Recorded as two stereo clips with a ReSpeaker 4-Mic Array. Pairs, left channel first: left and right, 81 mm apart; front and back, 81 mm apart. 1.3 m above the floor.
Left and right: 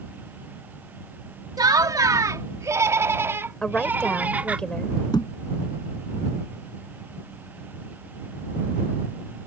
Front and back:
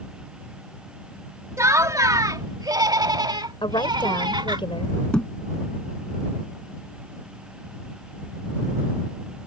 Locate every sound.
1.6 s laughter: 130° right; by 4.6 s 165° right
3.6 s a woman speaking: 10° left
5.1 s a thud: 75° left